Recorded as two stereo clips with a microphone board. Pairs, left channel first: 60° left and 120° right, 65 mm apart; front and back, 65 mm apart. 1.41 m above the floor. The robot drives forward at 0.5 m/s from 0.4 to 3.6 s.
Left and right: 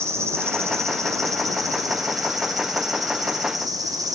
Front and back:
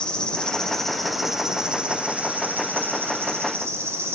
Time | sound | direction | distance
0.0 | an insect | 75° right | 1.5 m